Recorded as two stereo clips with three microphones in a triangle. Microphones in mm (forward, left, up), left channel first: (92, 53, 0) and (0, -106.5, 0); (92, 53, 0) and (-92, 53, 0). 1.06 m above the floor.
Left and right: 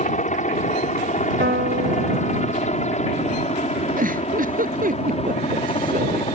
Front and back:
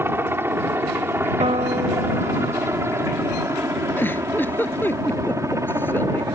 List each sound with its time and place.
0.0 s a helicopter: 105° left; by 6.3 s 110° left
1.4 s a piano: 130° right
4.0 s a giggle: 80° right